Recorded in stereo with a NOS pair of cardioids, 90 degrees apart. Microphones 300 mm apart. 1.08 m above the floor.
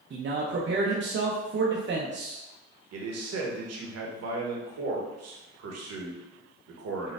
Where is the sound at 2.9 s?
65° right, 1.0 m.